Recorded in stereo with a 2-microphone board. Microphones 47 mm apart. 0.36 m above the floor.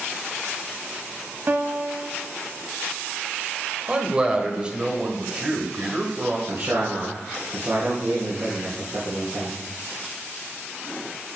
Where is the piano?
50° right (ahead or behind), 0.8 m.